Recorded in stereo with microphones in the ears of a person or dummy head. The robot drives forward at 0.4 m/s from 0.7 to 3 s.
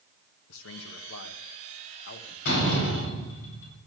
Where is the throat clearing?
I don't hear throat clearing.